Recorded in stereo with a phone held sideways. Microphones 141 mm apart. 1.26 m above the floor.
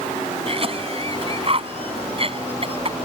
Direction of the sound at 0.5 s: 40° right (ahead or behind).